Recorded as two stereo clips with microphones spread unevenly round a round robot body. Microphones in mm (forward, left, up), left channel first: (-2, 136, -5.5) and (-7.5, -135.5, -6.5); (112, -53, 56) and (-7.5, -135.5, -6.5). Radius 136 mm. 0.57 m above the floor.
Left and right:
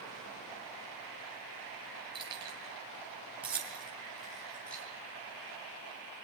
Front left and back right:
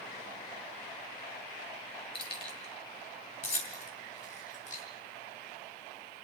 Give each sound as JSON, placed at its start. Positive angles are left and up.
{"t": 2.1, "sound": "keys jangling", "azimuth_deg": -15, "distance_m": 7.0}